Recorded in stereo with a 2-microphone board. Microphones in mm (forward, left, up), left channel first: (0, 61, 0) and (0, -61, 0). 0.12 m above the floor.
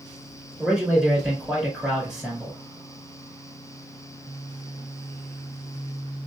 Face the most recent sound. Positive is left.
turn(degrees=-5)  # may be behind; listen again after turning